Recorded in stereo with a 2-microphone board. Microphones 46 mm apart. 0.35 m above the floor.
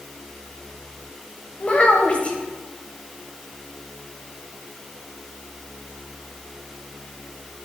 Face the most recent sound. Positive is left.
turn(degrees=30)  # may be behind; listen again after turning